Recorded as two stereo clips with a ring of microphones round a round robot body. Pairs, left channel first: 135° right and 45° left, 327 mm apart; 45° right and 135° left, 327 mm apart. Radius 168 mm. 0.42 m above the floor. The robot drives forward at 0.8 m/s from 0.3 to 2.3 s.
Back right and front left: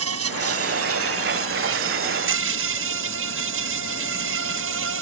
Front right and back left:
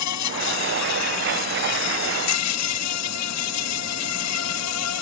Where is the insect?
5° right.